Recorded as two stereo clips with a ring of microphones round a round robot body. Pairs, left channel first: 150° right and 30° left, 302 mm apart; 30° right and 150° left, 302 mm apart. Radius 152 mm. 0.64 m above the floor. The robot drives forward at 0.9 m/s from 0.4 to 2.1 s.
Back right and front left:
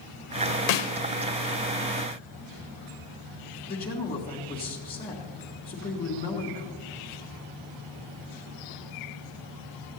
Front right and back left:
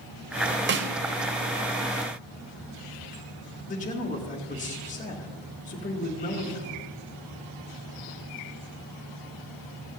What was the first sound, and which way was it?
A snare drum, 155° right.